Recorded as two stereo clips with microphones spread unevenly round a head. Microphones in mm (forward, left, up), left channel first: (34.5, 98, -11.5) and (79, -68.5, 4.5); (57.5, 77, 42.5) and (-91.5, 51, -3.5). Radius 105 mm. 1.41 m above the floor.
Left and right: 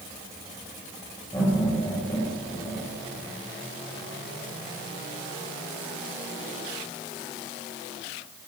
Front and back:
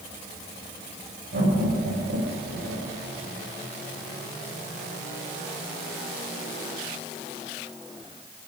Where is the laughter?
Straight behind, 7.5 m.